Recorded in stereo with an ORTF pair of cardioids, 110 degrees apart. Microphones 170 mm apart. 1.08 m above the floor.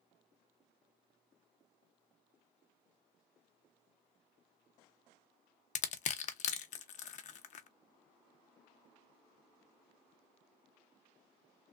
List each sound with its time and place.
5.8 s crushing: 45° left, 0.6 m